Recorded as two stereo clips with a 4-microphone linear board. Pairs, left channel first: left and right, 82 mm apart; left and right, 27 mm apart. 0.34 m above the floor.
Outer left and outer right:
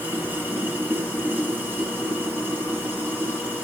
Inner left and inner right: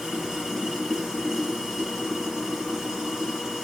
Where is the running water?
25° right (ahead or behind), 6.5 m.